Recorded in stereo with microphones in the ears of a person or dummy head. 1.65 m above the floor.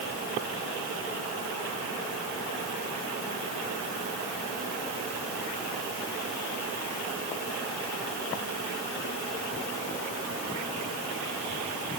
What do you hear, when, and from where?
Only background noise.